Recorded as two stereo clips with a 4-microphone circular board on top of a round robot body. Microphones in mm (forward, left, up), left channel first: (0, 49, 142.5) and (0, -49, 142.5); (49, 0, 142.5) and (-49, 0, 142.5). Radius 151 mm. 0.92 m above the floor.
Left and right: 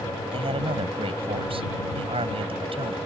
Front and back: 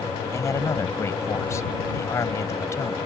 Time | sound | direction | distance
0.3 | a man speaking | 60° right | ?